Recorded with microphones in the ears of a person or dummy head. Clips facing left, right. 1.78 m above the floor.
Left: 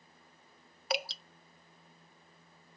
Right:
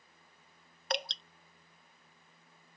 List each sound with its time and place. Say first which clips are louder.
0.9 s dripping: left 1 dB; centre (ahead or behind)